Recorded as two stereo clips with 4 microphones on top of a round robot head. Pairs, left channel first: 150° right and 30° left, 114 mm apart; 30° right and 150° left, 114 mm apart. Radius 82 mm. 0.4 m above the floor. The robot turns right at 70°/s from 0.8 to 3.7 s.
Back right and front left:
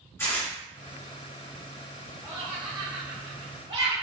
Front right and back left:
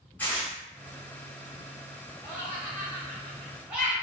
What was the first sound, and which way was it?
Tearing paper, 95° right.